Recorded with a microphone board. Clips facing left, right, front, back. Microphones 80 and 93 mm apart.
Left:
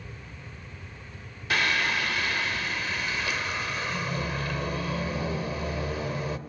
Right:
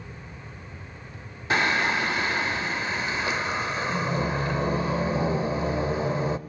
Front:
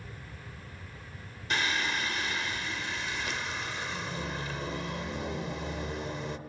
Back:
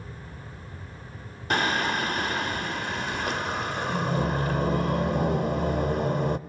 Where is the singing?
150° right, 0.6 m.